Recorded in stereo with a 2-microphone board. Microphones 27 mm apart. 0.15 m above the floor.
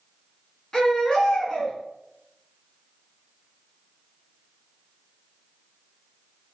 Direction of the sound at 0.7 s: 30° left (ahead or behind).